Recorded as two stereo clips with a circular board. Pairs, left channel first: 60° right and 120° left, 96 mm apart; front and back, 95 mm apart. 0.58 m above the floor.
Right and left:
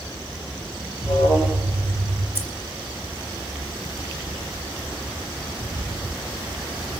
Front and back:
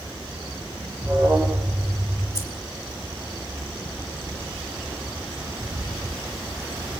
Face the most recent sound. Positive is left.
turn(degrees=50)